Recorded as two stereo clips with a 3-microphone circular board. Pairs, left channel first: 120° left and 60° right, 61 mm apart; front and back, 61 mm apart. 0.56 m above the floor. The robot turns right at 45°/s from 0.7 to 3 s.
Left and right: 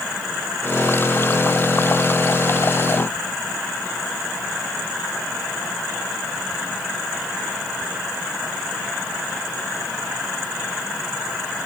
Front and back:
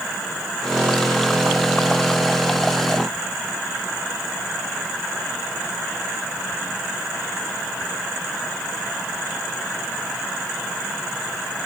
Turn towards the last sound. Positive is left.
No sound to turn to.